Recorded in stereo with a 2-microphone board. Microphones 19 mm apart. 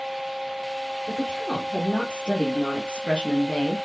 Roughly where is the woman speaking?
Left.